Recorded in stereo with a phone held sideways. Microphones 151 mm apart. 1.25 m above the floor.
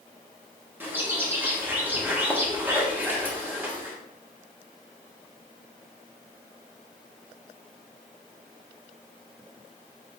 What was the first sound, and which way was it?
A bird, 15° right (ahead or behind).